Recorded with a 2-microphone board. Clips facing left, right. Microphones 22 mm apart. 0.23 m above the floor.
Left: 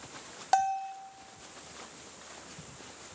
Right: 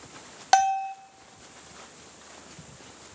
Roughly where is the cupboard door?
No cupboard door in this recording.